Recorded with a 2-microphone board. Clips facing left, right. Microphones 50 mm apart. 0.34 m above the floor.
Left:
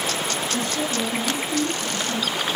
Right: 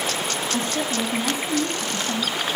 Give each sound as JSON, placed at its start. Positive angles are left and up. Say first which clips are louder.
{"t": 0.5, "sound": "a woman speaking", "louder": "right 1 dB", "side_deg": -35, "distance_m": 7.5}